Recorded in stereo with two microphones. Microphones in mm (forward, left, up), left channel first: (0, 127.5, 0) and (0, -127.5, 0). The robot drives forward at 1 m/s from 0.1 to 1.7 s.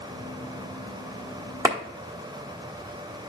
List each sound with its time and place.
1.6 s a clap: 15° right (ahead or behind), 1.3 m